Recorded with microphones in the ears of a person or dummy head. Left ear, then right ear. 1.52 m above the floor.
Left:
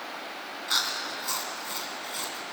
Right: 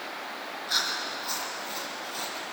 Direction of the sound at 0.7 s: 25° left (ahead or behind).